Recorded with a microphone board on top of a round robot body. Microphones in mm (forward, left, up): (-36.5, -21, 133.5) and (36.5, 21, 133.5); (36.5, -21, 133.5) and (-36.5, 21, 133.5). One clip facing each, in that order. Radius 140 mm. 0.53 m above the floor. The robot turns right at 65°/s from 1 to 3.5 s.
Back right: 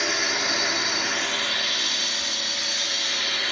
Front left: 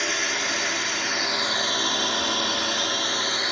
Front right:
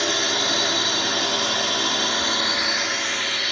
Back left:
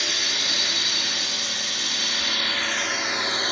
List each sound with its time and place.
0.0 s a drone: 65° right; by 3.5 s 95° left